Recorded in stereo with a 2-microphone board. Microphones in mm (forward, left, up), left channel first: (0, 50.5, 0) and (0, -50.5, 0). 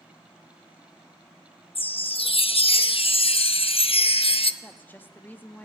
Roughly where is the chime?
Left.